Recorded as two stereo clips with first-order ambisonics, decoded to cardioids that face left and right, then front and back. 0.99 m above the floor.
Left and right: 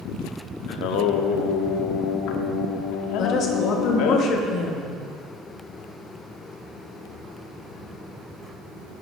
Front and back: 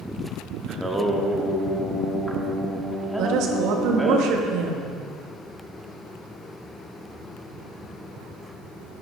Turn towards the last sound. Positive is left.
turn(degrees=145)